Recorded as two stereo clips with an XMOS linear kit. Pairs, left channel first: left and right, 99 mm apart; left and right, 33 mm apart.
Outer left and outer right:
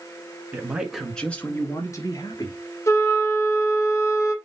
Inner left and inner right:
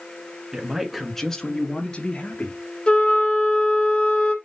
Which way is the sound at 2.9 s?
30° left (ahead or behind).